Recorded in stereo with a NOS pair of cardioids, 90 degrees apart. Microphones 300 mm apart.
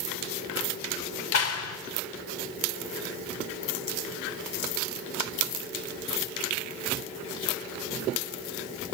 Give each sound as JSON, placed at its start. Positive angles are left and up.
{"t": 1.3, "sound": "a clap", "azimuth_deg": 55, "distance_m": 3.5}